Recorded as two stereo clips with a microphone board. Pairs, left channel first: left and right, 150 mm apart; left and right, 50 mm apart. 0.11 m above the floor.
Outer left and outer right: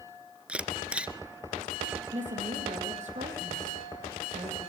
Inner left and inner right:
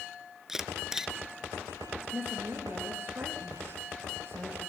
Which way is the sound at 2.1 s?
55° right (ahead or behind).